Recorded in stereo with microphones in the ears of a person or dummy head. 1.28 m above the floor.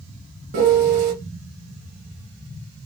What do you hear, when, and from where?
0.5 s a piano: 55° right (ahead or behind), 1.2 m